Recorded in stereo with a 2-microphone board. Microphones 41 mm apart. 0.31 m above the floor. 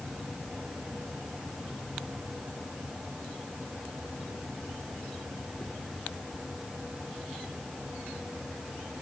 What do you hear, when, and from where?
Only background noise.